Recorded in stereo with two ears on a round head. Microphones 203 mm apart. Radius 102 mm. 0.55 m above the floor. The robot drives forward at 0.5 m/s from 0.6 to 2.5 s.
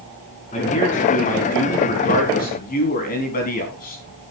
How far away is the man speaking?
About 5 m.